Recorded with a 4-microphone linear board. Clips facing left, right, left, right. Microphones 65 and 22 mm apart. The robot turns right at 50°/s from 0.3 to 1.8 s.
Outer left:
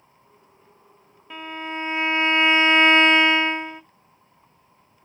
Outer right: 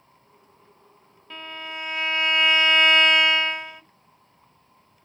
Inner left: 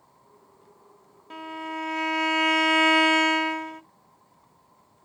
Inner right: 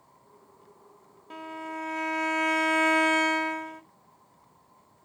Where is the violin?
10° left (ahead or behind), 0.5 m; by 3.8 s 25° left (ahead or behind), 0.5 m.